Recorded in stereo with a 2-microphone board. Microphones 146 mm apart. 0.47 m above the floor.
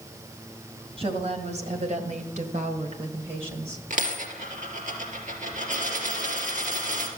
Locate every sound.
1.0 s a woman speaking: 45° right (ahead or behind), 2.5 m; by 3.8 s 35° right (ahead or behind), 2 m
3.9 s a dropped coin: 70° right (ahead or behind), 3 m